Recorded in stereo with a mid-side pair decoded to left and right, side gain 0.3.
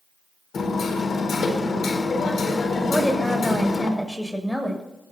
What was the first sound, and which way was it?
Hammering, 70° left.